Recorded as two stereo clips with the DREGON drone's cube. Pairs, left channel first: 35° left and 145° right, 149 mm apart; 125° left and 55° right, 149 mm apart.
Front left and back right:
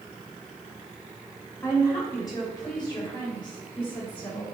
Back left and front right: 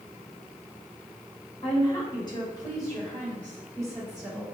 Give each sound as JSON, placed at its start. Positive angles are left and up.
{"t": 1.6, "sound": "a woman speaking", "azimuth_deg": 95, "distance_m": 1.9}